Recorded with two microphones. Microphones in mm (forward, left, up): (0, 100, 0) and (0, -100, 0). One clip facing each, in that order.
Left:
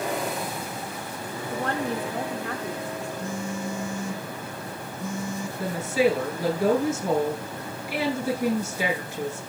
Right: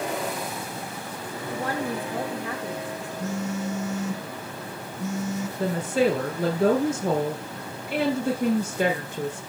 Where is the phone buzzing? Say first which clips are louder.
Right 5 dB; 65° right (ahead or behind), 3 m.